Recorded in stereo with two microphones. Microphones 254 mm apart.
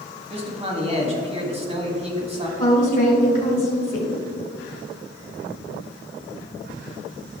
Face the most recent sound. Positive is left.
turn(degrees=35)  # may be behind; listen again after turning